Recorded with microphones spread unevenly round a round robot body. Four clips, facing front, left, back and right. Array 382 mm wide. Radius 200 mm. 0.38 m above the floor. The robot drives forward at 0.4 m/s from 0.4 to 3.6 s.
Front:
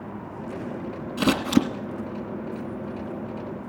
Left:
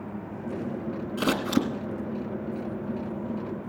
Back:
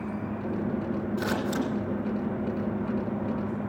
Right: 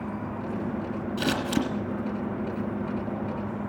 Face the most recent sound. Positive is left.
turn(degrees=15)